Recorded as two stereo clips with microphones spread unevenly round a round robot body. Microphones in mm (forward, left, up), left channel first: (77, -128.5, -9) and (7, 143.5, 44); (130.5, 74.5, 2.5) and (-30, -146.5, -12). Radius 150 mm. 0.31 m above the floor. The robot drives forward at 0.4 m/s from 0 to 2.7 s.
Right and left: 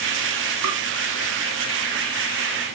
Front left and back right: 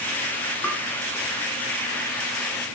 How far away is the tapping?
About 1.9 m.